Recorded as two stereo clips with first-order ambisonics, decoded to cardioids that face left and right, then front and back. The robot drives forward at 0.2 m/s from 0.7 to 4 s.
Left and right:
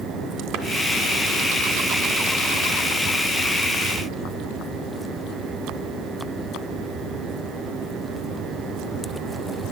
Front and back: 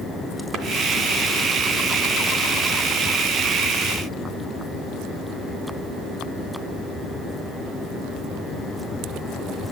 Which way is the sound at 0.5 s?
130° right.